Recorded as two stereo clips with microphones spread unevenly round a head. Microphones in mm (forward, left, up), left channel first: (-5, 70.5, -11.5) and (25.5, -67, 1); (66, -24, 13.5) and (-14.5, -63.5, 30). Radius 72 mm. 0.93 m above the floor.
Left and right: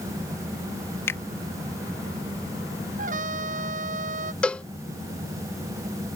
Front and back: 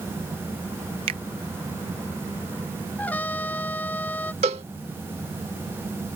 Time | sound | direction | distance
1.1 | a finger snap | 175° left | ?
3.0 | a trumpet | 45° right | ?
4.4 | a cowbell | 175° right | ?